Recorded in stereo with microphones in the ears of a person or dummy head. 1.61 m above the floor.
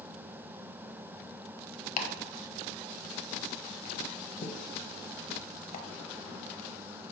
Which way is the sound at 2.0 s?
40° left (ahead or behind).